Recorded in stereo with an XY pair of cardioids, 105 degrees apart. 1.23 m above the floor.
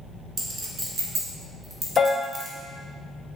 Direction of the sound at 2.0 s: 40° left.